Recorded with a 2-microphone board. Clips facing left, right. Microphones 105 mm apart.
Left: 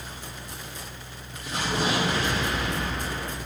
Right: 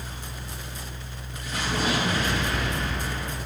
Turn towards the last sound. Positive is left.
turn(degrees=30)  # may be behind; listen again after turning